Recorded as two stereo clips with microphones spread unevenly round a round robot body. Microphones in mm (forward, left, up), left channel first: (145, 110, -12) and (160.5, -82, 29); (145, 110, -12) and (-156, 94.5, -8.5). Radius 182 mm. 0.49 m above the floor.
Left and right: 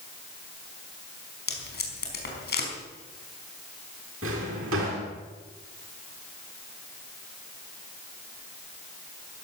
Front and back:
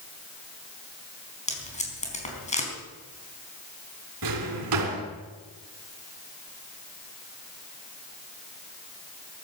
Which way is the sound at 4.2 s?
135° right.